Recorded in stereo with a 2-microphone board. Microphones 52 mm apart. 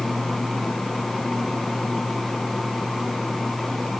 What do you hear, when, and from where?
Only background noise.